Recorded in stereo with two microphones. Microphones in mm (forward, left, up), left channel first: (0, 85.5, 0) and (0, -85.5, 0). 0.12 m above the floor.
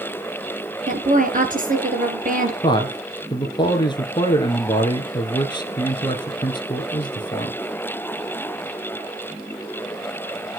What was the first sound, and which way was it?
A woman speaking, 50° right (ahead or behind).